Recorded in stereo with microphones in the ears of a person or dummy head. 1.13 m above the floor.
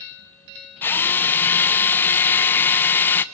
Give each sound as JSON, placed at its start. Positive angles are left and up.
{"t": 0.8, "sound": "a drill", "side_deg": 10, "distance_m": 0.7}